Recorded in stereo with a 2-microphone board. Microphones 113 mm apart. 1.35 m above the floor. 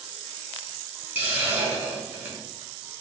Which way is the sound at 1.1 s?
15° right (ahead or behind).